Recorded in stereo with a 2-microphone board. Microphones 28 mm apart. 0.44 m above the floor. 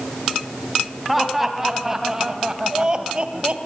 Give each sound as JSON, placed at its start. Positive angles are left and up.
{"t": 1.1, "sound": "laughter", "side_deg": -5, "distance_m": 3.0}